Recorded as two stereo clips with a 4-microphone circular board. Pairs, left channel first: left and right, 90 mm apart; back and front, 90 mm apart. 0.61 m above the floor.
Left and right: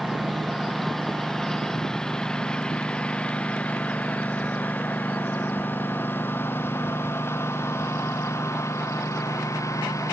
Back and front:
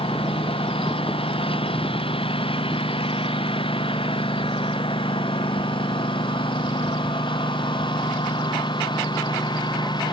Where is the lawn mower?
Straight behind; by 10.1 s 145° left.